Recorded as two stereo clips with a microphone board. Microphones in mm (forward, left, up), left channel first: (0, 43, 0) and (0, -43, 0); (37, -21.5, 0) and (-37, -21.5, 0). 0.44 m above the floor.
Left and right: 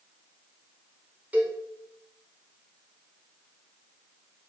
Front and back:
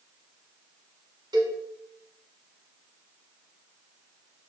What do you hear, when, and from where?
1.3 s a cowbell: 160° right, 0.9 m